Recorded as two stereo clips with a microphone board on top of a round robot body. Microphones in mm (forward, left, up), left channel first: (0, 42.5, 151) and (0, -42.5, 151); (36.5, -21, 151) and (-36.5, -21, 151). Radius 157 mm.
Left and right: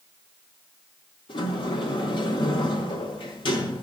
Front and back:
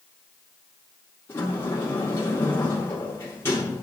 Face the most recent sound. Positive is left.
turn(degrees=60)